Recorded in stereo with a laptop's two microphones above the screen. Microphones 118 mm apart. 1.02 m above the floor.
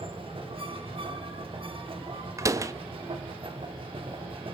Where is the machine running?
55° right (ahead or behind), 1.9 m.